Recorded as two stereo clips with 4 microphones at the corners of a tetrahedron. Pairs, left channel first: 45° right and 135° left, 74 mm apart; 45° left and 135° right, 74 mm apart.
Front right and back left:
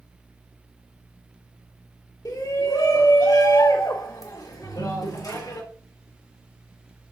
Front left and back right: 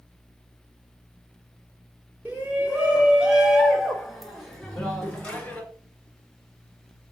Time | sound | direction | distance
2.2 | a shout | 70° right | 2.5 m
4.6 | a ringtone | 145° left | 0.9 m